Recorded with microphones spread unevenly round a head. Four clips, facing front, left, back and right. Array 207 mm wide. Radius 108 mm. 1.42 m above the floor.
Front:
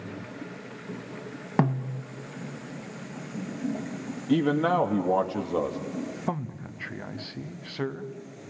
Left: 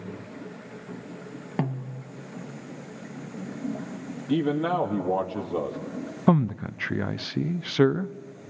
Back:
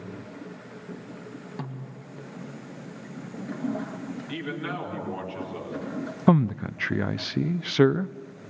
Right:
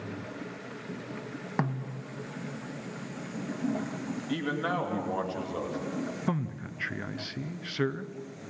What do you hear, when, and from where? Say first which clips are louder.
1.6 s a snare drum: left 2 dB, front 17 dB; 15° left, 1.1 m
4.3 s a man speaking: left 8 dB, front 13 dB; 30° left, 3 m
6.3 s a man speaking: left 10 dB, back 11 dB; 145° left, 0.6 m